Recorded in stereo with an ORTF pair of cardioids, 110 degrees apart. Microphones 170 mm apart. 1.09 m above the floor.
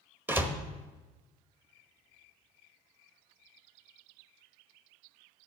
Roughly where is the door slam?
Ahead.